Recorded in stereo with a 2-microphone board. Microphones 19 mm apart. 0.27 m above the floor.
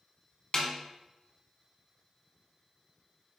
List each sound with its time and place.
0.5 s a snare drum: 40° left (ahead or behind), 0.9 m